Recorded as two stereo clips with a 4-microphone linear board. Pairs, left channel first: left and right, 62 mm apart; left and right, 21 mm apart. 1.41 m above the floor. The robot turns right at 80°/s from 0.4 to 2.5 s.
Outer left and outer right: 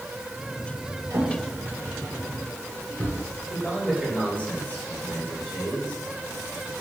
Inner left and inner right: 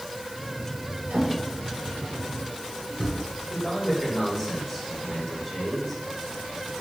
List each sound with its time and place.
1.1 s a drawer: 80° right, 4 m; by 3.2 s 25° left (ahead or behind), 4 m
3.5 s a man speaking: 20° left (ahead or behind), 3.5 m